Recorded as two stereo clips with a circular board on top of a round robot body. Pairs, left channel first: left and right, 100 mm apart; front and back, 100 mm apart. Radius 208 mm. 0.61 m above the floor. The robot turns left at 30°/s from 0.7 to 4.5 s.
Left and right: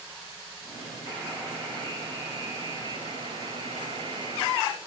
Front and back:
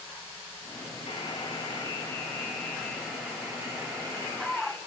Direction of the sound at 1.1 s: 35° right.